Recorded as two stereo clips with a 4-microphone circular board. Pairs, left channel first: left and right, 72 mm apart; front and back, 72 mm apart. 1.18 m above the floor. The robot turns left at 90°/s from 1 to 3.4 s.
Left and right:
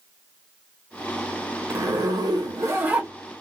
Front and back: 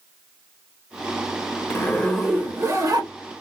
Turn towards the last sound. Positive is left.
turn(degrees=165)